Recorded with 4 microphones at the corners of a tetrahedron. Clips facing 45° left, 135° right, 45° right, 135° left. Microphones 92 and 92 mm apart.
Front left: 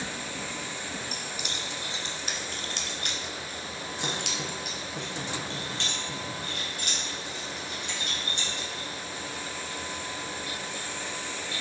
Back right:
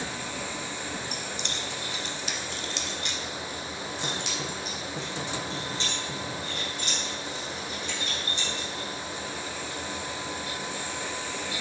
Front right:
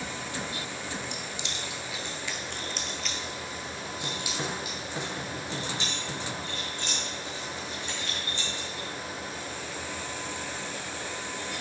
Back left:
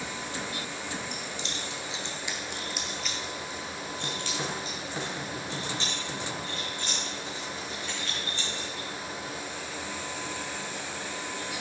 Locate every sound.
1.1 s keys jangling: 135° left, 1.0 m; by 8.9 s 20° left, 4.5 m